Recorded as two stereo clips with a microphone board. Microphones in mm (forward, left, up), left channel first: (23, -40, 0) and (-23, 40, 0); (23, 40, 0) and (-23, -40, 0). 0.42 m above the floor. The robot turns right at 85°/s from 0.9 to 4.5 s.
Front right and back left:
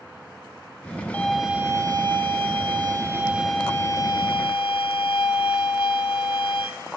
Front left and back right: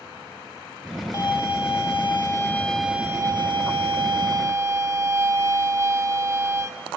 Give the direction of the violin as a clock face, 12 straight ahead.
12 o'clock.